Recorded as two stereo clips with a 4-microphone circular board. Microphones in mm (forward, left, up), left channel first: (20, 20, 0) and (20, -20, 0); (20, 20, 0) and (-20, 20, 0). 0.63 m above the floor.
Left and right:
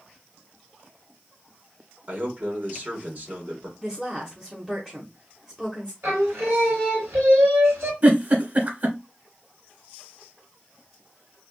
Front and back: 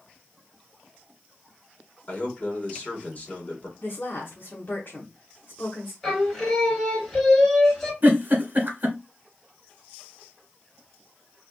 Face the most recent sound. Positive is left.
turn(degrees=-130)